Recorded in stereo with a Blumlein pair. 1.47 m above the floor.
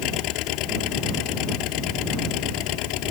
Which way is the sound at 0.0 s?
40° left.